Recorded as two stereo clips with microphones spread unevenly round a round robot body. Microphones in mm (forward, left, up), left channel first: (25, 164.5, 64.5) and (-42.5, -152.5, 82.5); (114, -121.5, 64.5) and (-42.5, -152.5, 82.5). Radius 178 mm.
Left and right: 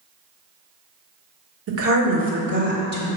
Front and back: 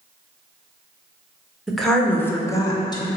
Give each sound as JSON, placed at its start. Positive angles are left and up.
{"t": 1.7, "sound": "a woman speaking", "azimuth_deg": -75, "distance_m": 1.7}